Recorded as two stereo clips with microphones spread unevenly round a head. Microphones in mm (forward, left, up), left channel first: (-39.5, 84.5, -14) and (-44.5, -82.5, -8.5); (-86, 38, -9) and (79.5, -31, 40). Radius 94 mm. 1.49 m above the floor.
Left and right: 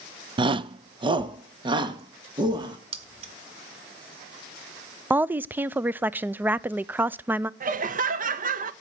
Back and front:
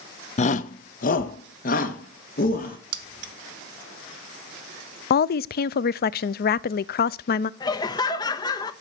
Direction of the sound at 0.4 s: 140° right.